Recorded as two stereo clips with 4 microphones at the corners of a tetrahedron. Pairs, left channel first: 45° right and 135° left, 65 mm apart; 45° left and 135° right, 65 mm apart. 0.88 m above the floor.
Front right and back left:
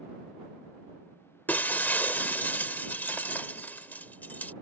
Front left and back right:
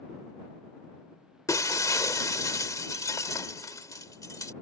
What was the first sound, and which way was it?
Breaking glass, 15° left.